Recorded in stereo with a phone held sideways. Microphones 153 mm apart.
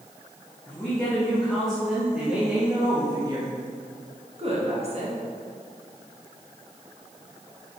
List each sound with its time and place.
0.7 s a woman speaking: 15° left (ahead or behind), 1.7 m; by 5.2 s 45° right (ahead or behind), 1.4 m